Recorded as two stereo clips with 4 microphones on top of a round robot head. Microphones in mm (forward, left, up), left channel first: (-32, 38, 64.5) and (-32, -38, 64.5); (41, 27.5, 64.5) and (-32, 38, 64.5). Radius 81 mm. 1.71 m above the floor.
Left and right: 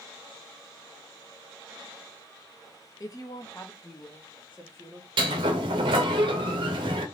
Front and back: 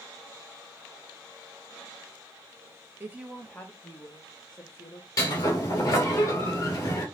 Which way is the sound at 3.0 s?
120° left.